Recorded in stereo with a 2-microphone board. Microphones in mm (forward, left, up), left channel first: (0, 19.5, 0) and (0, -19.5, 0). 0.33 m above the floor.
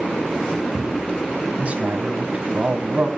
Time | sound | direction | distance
1.6 | a man speaking | 35° right (ahead or behind) | 2.5 m